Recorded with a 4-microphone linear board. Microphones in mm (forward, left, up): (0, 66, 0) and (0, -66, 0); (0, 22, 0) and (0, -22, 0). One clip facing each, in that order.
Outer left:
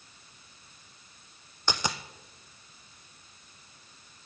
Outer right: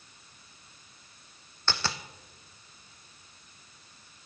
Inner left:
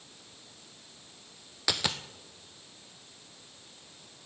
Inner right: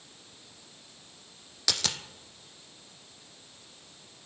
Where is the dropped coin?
15° left (ahead or behind), 1.0 m.